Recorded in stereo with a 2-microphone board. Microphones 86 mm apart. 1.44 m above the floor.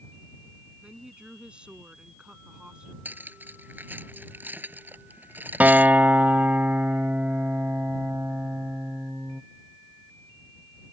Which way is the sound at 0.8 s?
10° right (ahead or behind).